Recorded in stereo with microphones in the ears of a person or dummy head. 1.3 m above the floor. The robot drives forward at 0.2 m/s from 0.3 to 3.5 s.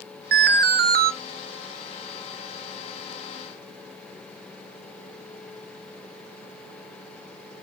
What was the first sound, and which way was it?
An alarm, 50° right (ahead or behind).